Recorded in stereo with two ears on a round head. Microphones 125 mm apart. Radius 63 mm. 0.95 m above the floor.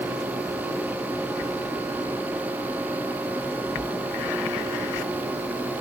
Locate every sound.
Only background noise.